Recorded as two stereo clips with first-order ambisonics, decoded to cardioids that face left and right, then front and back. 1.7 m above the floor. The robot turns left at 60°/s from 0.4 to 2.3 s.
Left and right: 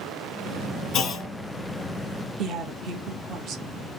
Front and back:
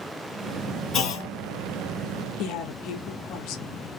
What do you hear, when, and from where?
0.9 s a clunk: 45° left, 1.1 m; by 1.3 s 20° left, 1.1 m
2.4 s a woman speaking: 35° right, 1.0 m